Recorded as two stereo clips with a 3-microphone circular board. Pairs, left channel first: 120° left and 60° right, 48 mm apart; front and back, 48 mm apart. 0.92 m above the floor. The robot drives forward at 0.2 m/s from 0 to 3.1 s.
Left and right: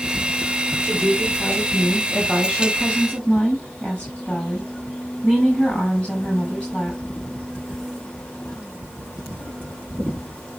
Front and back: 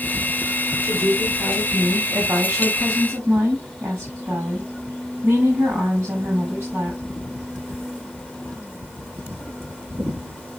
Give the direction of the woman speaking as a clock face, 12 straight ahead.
6 o'clock.